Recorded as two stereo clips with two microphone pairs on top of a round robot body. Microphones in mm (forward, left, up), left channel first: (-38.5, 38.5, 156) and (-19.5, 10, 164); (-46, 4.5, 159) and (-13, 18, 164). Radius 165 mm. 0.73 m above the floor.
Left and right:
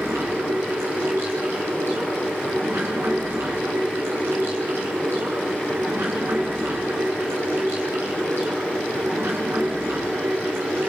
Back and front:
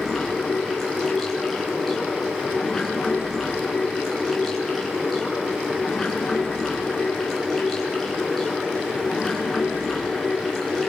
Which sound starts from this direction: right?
Running water, at 0.0 s.